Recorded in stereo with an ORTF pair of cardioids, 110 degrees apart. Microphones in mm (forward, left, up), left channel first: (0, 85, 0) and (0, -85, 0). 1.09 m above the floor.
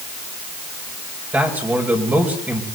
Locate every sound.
1.3 s a man speaking: 10° right, 5.5 m